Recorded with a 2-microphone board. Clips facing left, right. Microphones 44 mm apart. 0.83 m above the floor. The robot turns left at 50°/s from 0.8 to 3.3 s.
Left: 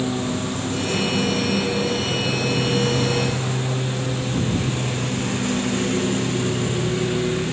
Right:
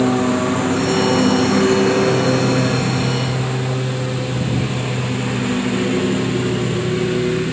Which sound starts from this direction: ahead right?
A lawn mower, at 0.0 s.